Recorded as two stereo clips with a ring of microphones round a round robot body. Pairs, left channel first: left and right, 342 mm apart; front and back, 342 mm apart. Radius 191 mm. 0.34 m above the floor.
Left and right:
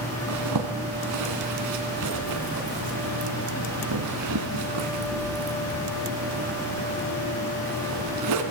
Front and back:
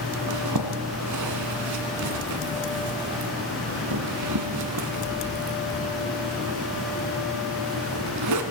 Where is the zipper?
135° right, 1.7 m.